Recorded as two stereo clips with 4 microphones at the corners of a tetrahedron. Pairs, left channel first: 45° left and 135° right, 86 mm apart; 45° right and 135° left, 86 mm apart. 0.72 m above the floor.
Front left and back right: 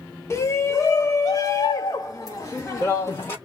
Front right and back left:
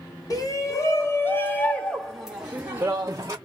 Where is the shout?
10° right, 1.8 m; by 3.4 s 95° left, 1.4 m.